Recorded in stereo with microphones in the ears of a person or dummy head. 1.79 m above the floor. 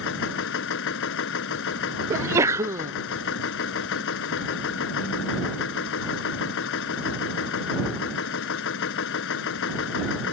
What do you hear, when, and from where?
0.0 s a machine running: 65° left (ahead or behind)
2.1 s a sneeze: 15° right (ahead or behind)